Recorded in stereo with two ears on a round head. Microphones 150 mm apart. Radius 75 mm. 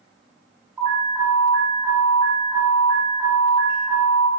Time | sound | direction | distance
0.8 | an alarm | 15° right (ahead or behind) | 1.6 m